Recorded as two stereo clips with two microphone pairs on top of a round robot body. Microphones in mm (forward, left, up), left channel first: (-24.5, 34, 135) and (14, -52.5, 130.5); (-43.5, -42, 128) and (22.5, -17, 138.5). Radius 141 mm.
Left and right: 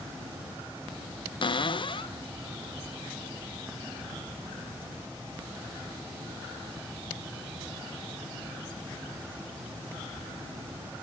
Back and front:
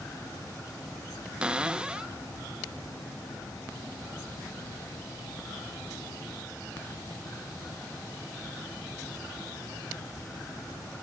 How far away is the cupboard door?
About 0.7 m.